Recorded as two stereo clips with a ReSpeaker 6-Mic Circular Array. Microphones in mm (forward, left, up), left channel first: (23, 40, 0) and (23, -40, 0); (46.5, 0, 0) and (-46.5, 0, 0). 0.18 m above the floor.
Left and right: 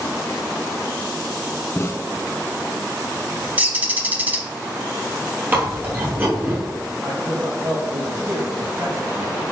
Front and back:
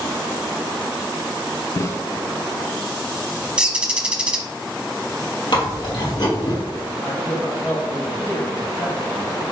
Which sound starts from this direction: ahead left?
A snare drum, at 1.8 s.